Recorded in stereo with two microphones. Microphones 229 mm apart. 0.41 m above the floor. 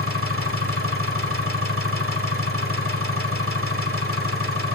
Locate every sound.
0.0 s an engine running: 85° right, 0.7 m